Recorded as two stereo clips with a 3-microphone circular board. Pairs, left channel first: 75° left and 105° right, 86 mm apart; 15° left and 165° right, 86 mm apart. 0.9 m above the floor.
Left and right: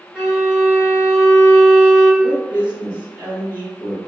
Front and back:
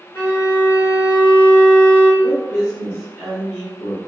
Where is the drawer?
No drawer in this recording.